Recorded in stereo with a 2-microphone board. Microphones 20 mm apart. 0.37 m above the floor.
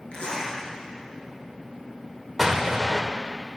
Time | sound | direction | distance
0.1 | a zipper | 75° left (ahead or behind) | 4 m
2.4 | an explosion | 10° right (ahead or behind) | 1.5 m